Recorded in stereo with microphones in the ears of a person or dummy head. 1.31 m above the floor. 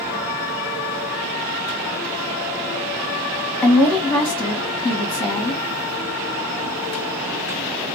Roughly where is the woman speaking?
Centre.